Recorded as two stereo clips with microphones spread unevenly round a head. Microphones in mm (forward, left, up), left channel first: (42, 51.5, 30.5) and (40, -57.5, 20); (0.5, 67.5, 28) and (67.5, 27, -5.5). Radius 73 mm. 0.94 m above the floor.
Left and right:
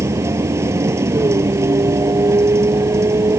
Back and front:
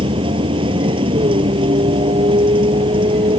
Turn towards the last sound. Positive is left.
turn(degrees=-25)